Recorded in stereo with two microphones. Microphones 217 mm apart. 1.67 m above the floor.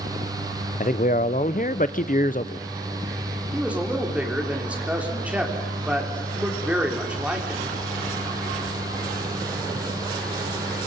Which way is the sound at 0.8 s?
40° left (ahead or behind).